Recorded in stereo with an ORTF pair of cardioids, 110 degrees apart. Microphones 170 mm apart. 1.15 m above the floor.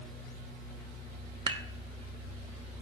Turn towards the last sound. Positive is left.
turn(degrees=-35)